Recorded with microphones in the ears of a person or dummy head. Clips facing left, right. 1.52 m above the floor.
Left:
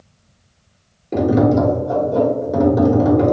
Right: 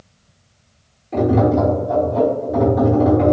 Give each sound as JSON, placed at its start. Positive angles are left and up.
{"t": 1.1, "sound": "tapping", "side_deg": 60, "distance_m": 0.9}